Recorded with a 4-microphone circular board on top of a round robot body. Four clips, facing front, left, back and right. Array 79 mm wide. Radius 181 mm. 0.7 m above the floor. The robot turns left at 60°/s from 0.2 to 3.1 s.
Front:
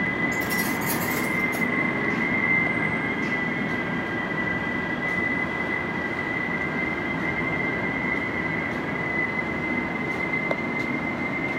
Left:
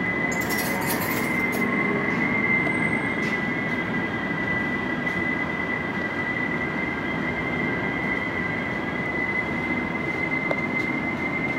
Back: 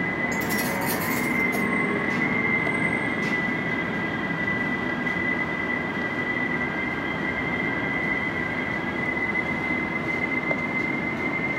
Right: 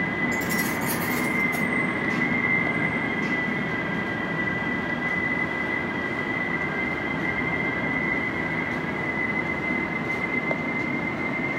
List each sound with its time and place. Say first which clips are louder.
0.3 s keys jangling: even, even; 165° left, 6 m; by 1.7 s 80° left, 6 m